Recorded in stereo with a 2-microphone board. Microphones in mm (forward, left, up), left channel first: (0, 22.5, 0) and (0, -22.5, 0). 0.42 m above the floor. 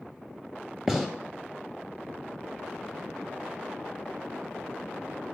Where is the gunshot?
10° right (ahead or behind), 1.5 m.